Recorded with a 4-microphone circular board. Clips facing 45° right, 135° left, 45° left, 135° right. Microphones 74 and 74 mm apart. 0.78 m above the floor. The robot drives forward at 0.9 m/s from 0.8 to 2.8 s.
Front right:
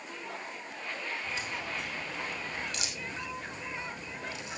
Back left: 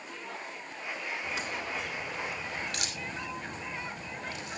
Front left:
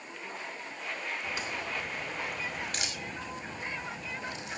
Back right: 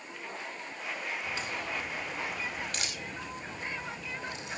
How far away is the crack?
About 4.5 m.